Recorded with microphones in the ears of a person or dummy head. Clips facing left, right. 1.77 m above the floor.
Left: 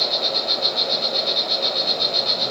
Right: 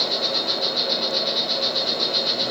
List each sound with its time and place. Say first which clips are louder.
0.0 s an insect: even; 15° right (ahead or behind), 1.2 m